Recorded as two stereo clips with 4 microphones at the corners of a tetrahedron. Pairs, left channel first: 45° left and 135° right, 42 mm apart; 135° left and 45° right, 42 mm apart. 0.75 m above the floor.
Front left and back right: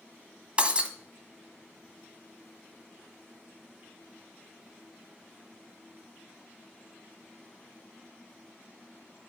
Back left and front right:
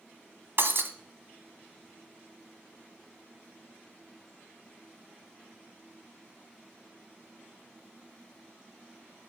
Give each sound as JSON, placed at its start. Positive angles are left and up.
{"t": 0.6, "sound": "breaking glass", "azimuth_deg": -70, "distance_m": 1.4}